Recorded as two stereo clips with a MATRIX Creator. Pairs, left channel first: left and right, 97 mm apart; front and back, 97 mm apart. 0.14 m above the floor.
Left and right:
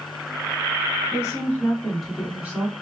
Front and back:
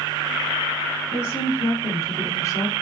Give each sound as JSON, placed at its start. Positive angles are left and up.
{"t": 1.1, "sound": "a woman speaking", "azimuth_deg": 55, "distance_m": 1.6}